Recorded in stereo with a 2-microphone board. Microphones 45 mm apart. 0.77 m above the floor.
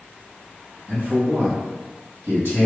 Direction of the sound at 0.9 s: 60° right (ahead or behind).